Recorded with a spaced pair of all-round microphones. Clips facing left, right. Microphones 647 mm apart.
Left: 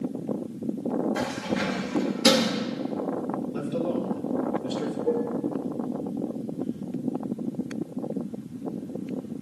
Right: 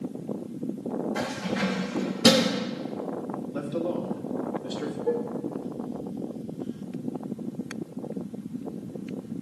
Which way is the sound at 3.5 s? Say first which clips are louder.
Even; 55° left (ahead or behind).